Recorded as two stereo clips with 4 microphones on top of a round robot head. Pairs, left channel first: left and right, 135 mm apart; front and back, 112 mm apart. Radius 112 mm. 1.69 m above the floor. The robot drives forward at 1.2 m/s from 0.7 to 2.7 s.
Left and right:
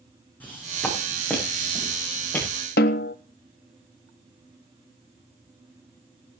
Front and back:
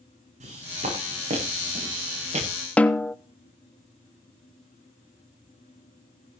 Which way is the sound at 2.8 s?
75° left.